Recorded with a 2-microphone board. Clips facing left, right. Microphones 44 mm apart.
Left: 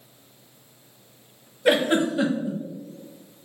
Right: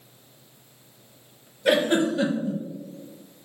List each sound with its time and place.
1.6 s a giggle: 15° left (ahead or behind), 0.8 m